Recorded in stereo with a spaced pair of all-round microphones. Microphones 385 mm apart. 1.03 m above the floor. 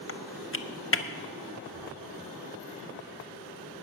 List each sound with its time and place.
0.1 s typing on a keyboard: 35° left (ahead or behind), 0.6 m
1.7 s a thud: 70° left (ahead or behind), 4 m